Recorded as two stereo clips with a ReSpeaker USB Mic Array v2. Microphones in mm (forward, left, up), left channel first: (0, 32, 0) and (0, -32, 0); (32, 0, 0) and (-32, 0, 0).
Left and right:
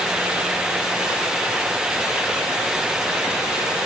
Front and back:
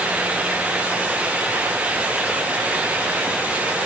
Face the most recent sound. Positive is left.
No sound to turn to.